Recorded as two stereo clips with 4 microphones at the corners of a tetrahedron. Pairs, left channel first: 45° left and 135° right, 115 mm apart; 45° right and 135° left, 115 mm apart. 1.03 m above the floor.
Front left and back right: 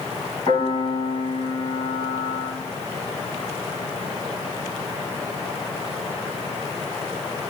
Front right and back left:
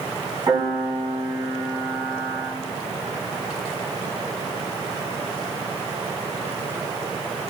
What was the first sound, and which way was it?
A piano, 85° left.